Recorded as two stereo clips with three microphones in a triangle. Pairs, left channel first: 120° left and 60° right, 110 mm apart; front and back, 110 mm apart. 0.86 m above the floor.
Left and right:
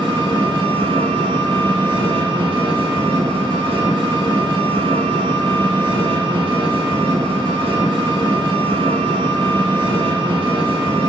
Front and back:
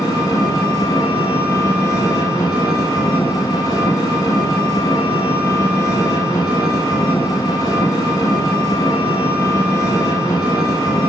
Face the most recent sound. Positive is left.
turn(degrees=-50)